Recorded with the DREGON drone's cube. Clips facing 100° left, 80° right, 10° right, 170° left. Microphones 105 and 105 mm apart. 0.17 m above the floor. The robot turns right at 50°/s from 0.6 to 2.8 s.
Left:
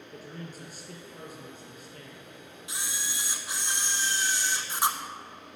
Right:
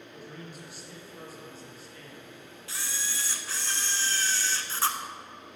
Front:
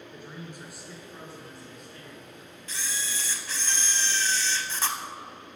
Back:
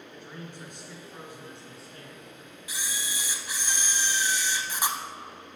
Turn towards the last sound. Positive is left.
turn(degrees=120)